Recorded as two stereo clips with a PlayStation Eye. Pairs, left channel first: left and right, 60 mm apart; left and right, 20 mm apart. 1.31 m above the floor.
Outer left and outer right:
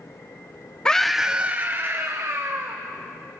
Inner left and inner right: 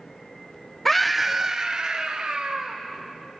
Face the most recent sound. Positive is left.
turn(degrees=-55)  # may be behind; listen again after turning